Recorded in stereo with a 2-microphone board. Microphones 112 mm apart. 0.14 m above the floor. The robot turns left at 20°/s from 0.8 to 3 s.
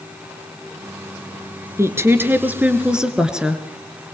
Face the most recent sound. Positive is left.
turn(degrees=-5)  # may be behind; listen again after turning